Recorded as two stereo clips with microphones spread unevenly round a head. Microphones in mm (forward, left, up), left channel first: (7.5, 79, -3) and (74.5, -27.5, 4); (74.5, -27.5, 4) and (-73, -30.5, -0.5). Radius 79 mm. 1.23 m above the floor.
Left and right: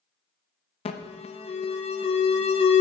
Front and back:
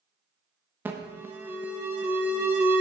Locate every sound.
0.8 s an alarm: 105° left, 0.5 m